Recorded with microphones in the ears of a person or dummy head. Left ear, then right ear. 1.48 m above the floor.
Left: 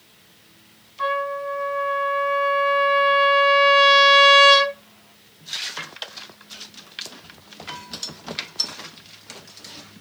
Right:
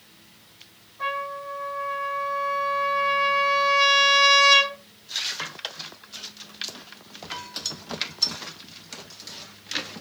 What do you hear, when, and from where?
1.0 s a trumpet: 45° left (ahead or behind), 1.8 m